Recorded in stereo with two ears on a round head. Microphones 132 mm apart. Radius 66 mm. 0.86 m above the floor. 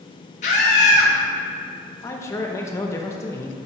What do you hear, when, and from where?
0.4 s a scream: 50° left (ahead or behind), 1.6 m
2.0 s a man speaking: 20° left (ahead or behind), 0.8 m